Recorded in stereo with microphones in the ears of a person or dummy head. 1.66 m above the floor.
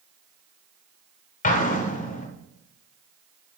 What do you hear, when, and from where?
1.4 s an explosion: 40° left (ahead or behind), 0.8 m